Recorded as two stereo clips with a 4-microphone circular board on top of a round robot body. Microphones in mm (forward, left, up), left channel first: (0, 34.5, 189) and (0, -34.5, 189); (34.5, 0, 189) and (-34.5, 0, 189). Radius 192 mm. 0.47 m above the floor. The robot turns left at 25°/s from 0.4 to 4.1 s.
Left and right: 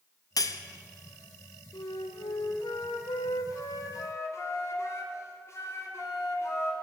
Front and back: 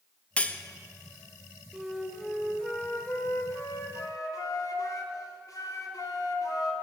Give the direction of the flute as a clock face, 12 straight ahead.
9 o'clock.